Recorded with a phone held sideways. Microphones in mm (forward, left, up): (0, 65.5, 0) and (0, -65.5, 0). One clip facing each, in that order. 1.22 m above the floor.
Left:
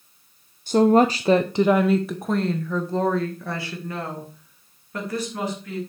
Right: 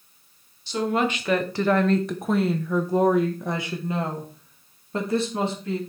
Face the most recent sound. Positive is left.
turn(degrees=-30)  # may be behind; listen again after turning